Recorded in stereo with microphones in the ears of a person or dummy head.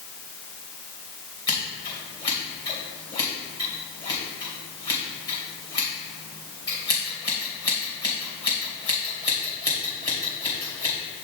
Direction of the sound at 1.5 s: 25° left (ahead or behind).